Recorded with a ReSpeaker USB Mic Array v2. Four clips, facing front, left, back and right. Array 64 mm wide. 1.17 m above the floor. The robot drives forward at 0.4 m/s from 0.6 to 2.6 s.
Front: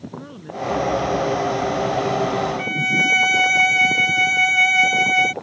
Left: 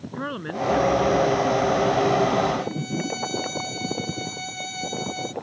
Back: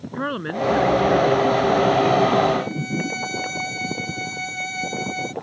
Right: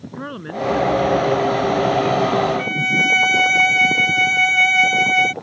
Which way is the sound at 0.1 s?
175° left.